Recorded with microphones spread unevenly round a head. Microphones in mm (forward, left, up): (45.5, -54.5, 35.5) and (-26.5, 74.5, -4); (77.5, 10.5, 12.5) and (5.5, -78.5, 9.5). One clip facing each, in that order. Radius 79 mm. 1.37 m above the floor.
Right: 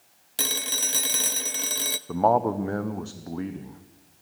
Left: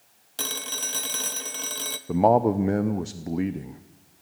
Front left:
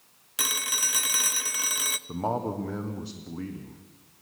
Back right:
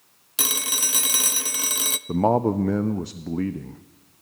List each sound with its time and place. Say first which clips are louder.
0.4 s a phone ringing: right 2 dB, back right 3 dB; 95° right, 0.6 m
2.1 s a man speaking: left 3 dB, back right 9 dB; 175° right, 0.7 m